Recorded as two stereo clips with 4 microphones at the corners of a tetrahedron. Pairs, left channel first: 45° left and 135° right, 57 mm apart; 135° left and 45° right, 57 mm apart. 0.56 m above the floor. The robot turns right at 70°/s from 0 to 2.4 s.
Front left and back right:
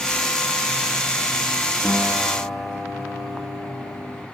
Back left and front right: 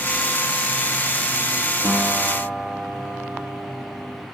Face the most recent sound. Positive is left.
turn(degrees=30)